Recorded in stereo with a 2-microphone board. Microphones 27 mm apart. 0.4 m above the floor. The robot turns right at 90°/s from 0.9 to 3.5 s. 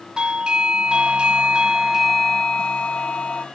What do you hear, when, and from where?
0.2 s a doorbell: 120° right; by 3.5 s 110° left